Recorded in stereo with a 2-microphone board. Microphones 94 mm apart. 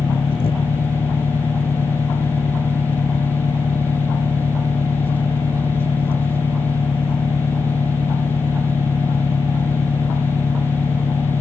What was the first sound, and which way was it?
An engine running, 75° left (ahead or behind).